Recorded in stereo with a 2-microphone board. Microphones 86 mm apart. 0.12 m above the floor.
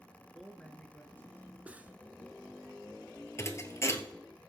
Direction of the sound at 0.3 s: Centre (ahead or behind).